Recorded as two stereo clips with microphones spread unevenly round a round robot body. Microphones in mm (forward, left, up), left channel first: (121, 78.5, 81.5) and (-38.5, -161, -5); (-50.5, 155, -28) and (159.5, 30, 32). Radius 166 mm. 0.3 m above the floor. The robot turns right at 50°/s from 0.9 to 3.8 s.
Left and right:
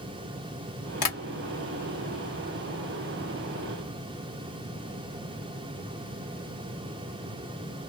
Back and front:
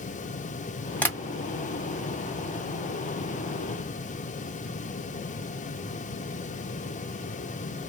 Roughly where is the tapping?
Left.